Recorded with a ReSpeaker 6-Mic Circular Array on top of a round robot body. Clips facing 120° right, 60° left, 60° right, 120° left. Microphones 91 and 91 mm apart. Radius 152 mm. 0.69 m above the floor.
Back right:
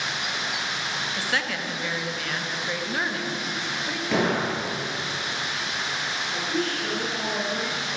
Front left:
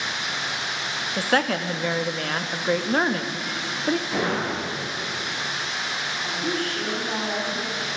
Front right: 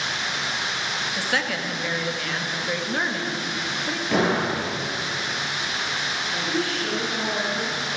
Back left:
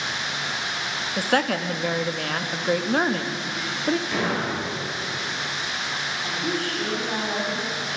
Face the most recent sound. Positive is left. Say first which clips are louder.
# even, front right 1 dB
turn(degrees=85)